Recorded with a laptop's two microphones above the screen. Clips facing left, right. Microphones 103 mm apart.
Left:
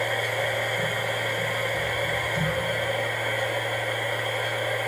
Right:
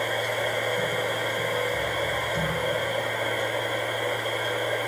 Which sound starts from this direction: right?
A machine running, at 0.0 s.